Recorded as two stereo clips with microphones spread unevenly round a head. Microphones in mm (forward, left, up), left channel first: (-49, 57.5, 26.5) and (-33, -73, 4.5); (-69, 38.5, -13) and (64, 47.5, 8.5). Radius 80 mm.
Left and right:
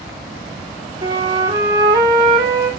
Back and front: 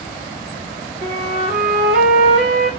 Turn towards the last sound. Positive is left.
turn(degrees=-20)